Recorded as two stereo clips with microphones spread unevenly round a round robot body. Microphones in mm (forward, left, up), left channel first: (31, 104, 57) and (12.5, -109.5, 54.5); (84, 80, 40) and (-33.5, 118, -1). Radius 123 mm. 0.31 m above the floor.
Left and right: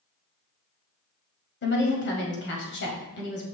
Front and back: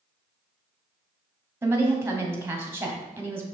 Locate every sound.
1.6 s a woman speaking: 105° left, 1.8 m